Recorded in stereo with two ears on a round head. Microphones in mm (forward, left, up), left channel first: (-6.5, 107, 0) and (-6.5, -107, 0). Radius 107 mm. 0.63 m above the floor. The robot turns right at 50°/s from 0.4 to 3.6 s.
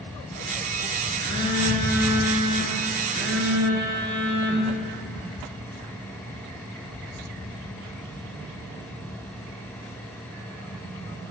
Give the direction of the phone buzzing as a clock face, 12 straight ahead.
12 o'clock.